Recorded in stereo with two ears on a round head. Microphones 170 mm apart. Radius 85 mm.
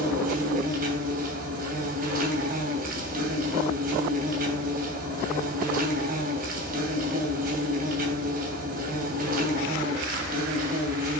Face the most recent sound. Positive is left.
turn(degrees=-50)  # may be behind; listen again after turning